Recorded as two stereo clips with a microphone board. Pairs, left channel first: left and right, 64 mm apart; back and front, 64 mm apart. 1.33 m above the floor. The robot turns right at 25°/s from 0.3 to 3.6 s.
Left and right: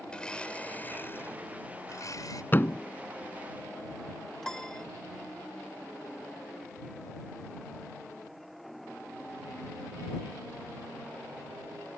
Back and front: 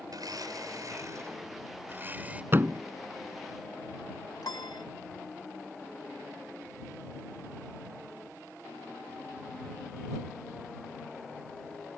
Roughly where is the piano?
Behind.